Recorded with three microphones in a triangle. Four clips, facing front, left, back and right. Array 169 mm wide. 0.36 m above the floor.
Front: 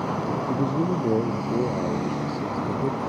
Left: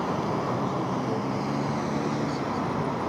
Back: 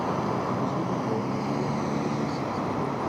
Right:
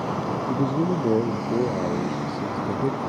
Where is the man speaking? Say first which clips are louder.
Right 5 dB, front 4 dB; 55° right; by 3.0 s 60° right.